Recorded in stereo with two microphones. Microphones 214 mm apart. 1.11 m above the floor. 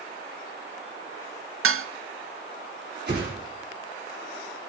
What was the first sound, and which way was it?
Dishes clattering, 75° right (ahead or behind).